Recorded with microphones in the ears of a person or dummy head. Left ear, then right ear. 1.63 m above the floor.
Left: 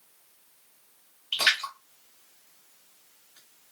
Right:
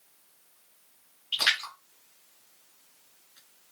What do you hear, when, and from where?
1.3 s a splash: 15° left (ahead or behind), 2.5 m